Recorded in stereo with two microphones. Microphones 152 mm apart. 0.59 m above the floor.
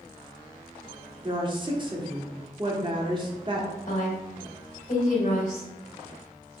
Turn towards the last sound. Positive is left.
turn(degrees=65)  # may be behind; listen again after turning